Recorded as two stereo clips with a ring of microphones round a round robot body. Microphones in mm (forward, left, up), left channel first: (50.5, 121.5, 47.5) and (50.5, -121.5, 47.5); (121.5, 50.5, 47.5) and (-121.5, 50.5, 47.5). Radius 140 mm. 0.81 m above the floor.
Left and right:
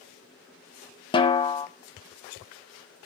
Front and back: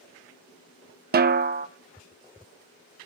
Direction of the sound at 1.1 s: 150° left.